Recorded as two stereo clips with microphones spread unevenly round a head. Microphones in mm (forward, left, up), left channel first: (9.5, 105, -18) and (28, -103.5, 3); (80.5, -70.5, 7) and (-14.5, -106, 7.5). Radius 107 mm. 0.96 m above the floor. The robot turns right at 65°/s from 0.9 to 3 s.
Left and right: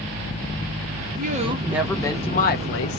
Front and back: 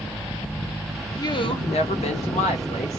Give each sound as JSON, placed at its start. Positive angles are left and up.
{"t": 1.2, "sound": "a woman speaking", "azimuth_deg": -35, "distance_m": 0.7}